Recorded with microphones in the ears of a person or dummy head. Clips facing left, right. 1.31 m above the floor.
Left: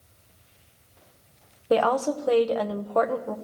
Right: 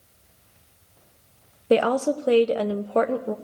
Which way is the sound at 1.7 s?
30° right (ahead or behind).